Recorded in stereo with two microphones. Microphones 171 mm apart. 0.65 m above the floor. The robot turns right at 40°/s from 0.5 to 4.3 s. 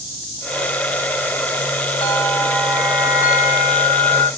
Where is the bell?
150° left, 2 m; by 4.3 s 120° right, 2 m.